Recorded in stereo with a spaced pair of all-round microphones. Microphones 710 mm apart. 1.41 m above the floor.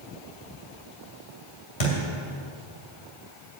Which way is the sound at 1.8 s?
65° left (ahead or behind).